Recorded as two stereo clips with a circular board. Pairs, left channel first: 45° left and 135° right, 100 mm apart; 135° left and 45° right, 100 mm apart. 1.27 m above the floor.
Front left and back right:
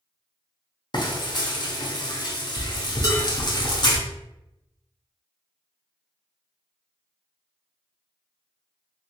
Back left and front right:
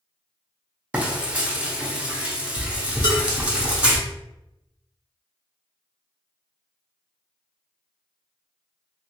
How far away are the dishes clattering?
About 1.3 m.